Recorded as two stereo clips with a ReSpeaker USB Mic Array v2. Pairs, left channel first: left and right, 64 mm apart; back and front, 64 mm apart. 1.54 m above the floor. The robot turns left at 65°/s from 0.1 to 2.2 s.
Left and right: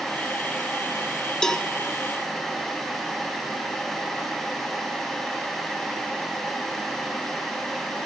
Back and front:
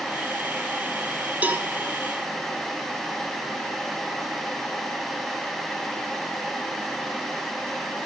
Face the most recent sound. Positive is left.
turn(degrees=-25)